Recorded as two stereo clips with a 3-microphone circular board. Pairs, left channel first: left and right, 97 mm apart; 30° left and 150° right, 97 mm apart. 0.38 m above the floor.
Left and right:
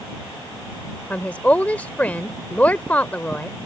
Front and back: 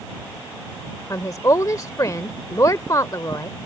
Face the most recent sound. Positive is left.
turn(degrees=30)